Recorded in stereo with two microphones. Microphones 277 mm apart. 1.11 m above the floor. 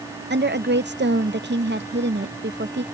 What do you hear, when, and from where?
0.3 s a woman speaking: 40° right (ahead or behind)